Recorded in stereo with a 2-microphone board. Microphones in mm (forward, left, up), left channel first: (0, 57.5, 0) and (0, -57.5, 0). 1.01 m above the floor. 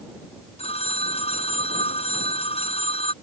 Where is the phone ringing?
60° left (ahead or behind).